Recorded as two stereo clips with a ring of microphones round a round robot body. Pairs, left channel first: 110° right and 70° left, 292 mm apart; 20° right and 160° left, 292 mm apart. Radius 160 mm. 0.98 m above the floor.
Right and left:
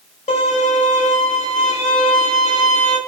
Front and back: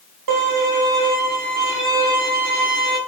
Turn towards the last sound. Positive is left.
turn(degrees=180)